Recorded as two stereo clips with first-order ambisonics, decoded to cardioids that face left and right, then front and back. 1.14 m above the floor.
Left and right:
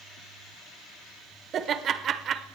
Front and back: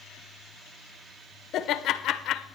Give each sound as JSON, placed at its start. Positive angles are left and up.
{"t": 1.5, "sound": "laughter", "azimuth_deg": -40, "distance_m": 0.7}